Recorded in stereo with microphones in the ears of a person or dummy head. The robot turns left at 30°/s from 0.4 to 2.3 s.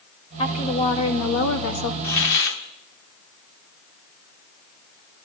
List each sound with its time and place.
0.4 s a woman speaking: 145° left, 2.0 m; by 1.9 s 100° left, 2.0 m
2.0 s a hiss: 60° left (ahead or behind), 1.4 m; by 2.6 s 65° left (ahead or behind), 1.4 m